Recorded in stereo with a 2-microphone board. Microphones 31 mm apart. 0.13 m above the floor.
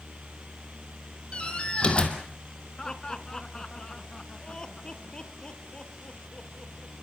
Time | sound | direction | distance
1.3 | a door slam | 40° left (ahead or behind) | 3.5 m
2.8 | laughter | 25° left (ahead or behind) | 1.6 m